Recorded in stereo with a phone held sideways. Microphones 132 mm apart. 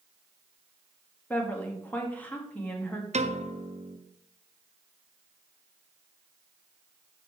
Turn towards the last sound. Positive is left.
turn(degrees=-65)  # may be behind; listen again after turning